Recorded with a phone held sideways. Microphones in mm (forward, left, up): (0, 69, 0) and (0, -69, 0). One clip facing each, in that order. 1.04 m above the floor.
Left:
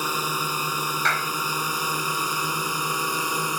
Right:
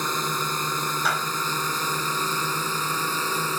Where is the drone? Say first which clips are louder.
Even; 10° left (ahead or behind); by 3.6 s 15° left (ahead or behind).